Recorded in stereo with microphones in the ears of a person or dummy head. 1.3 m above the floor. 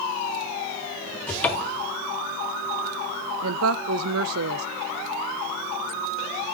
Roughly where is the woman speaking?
Right.